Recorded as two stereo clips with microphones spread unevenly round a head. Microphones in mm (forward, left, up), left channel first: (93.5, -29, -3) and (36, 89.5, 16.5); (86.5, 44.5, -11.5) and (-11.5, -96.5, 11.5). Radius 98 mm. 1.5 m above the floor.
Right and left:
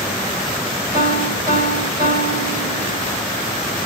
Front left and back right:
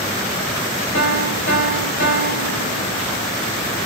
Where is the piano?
60° left, 3.5 m.